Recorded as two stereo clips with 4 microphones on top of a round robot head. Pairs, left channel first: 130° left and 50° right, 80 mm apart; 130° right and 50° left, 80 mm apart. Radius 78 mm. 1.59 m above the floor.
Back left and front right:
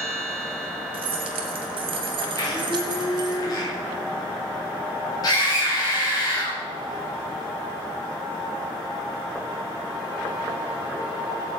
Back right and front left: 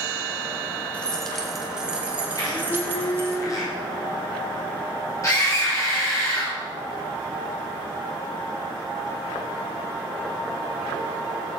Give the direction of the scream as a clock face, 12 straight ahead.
6 o'clock.